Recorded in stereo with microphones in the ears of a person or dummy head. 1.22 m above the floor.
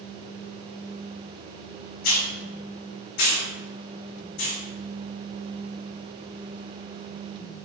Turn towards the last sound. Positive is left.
turn(degrees=60)  # may be behind; listen again after turning